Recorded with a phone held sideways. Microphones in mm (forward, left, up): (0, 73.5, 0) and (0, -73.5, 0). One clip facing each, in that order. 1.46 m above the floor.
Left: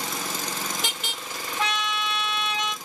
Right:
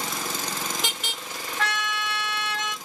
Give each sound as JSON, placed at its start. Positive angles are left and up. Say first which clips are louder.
{"t": 1.6, "sound": "a trumpet", "louder": "left 1 dB", "side_deg": 15, "distance_m": 1.7}